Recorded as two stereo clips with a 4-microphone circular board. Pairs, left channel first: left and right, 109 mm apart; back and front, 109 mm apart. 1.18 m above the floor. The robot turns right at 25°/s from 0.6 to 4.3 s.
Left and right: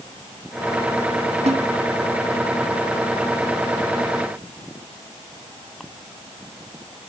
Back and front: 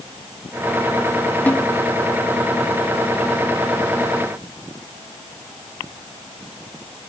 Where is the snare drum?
105° right, 1.1 m; by 1.7 s 100° right, 1.1 m.